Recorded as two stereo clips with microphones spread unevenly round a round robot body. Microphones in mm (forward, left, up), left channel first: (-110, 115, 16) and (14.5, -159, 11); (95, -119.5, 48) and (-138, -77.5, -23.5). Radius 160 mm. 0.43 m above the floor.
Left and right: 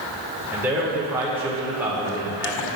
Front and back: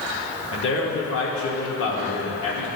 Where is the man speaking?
10° left, 1.0 m.